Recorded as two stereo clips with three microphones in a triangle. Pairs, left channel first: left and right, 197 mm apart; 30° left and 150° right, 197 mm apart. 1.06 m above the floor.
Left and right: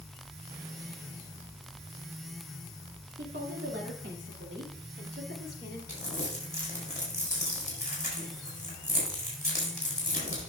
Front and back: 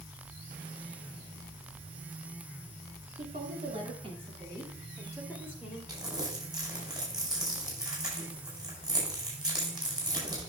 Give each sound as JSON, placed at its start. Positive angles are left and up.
{"t": 3.2, "sound": "a woman speaking", "azimuth_deg": -105, "distance_m": 2.5}
{"t": 5.9, "sound": "crumpling", "azimuth_deg": 140, "distance_m": 4.5}